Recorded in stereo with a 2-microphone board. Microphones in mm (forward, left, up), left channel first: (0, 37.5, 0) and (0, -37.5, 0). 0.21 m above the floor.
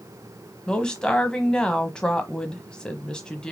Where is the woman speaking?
10° left (ahead or behind), 1.1 m.